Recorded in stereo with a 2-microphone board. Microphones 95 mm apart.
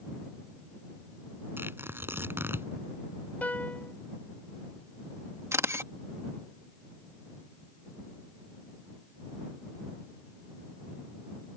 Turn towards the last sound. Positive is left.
turn(degrees=-30)  # may be behind; listen again after turning